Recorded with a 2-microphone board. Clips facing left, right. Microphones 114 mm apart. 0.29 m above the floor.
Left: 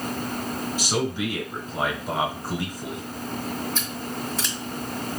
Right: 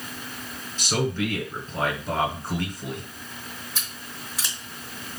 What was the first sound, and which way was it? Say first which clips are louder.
A man speaking: right 2 dB; 10° left (ahead or behind).